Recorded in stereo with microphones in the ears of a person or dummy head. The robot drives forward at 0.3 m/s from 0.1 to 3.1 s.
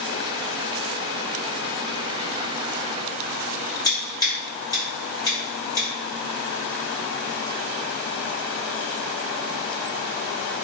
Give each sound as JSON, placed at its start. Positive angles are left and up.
{"t": 3.8, "sound": "scissors", "side_deg": 15, "distance_m": 0.9}